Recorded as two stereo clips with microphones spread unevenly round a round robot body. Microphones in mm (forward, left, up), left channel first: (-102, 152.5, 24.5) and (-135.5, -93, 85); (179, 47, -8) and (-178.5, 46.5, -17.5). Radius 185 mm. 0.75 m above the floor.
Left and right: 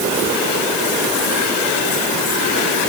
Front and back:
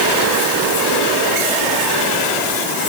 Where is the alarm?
I don't hear an alarm.